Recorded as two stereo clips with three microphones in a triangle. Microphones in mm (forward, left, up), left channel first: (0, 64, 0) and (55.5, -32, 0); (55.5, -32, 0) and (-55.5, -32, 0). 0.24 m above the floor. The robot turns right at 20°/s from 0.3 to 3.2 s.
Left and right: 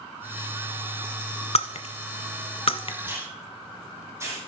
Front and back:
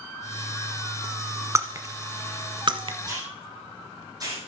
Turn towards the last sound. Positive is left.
turn(degrees=-125)